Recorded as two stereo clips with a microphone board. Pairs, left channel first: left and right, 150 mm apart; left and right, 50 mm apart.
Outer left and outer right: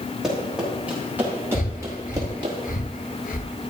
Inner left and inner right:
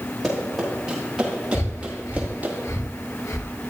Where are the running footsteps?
5° right (ahead or behind), 6 m; by 2.5 s 30° right (ahead or behind), 4.5 m.